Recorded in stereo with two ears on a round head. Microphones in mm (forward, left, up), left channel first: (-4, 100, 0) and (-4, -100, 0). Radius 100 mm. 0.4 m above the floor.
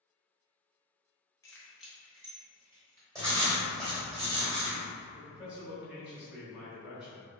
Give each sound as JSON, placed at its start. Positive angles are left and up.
{"t": 1.4, "sound": "keys jangling", "side_deg": 15, "distance_m": 0.5}
{"t": 3.1, "sound": "writing", "side_deg": -15, "distance_m": 1.4}
{"t": 5.1, "sound": "a man speaking", "side_deg": -5, "distance_m": 0.8}